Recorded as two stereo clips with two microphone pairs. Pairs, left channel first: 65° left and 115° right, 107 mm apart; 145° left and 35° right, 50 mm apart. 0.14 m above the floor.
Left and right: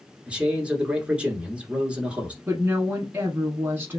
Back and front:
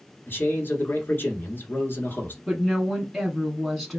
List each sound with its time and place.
0.3 s a man speaking: 170° left, 1.7 m
2.5 s a woman speaking: 115° right, 1.1 m